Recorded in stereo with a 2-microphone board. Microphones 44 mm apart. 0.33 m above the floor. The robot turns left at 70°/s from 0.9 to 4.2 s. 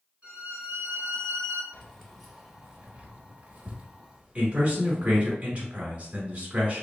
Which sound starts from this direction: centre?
Keys jangling, at 1.7 s.